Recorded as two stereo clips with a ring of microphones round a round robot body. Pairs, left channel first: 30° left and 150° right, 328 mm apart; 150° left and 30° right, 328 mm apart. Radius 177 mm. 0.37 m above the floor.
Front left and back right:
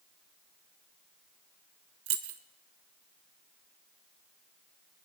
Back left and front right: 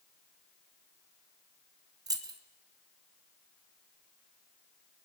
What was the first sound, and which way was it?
Keys jangling, 105° right.